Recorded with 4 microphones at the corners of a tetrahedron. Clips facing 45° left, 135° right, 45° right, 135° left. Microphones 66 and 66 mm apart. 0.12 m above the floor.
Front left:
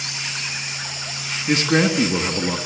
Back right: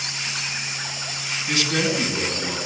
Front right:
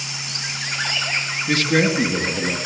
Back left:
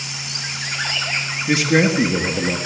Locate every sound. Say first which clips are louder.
1.5 s a man speaking: front left 5 dB, back left 2 dB; 65° left, 1.8 m